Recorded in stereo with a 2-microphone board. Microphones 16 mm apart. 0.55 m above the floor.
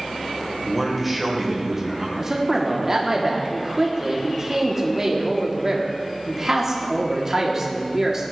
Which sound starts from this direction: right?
A man speaking, at 2.2 s.